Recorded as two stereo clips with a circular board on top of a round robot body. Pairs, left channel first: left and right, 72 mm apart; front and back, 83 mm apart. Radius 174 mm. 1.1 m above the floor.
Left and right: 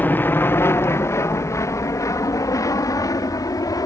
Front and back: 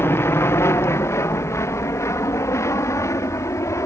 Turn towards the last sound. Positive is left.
turn(degrees=55)